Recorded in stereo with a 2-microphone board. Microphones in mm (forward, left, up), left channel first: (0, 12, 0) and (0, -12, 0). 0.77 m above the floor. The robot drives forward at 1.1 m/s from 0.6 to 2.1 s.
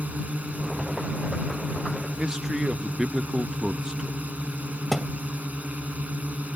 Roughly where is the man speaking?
Right.